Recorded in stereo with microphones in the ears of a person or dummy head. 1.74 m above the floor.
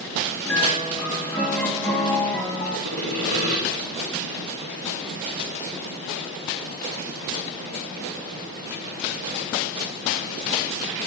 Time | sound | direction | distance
0.5 | a piano | centre (ahead or behind) | 2.5 m
2.9 | sawing | 50° right (ahead or behind) | 1.8 m